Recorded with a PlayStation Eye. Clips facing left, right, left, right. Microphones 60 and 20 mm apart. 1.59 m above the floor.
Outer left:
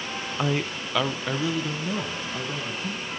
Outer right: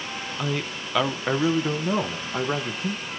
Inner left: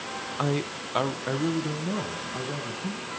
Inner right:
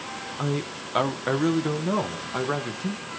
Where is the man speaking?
25° left (ahead or behind), 1.0 m; by 3.1 s 55° right (ahead or behind), 2 m.